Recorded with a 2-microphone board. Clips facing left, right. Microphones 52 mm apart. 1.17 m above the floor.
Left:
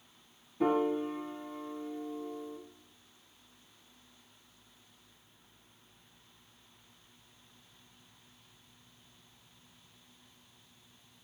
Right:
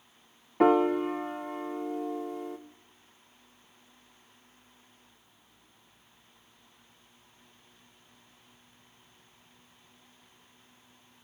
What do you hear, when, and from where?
0.6 s a piano: 70° right (ahead or behind), 0.6 m